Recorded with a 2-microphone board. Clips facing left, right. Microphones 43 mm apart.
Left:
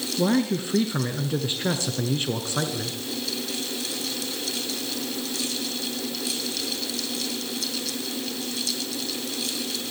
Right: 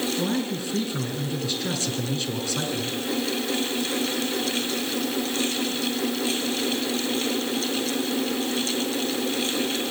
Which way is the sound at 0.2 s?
30° left (ahead or behind).